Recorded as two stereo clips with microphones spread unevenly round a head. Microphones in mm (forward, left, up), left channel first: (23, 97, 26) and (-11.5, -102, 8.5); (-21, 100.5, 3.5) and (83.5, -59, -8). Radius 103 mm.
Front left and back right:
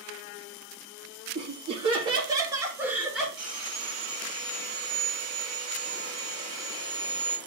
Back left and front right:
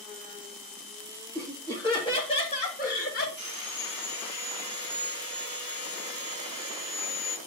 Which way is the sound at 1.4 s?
155° right.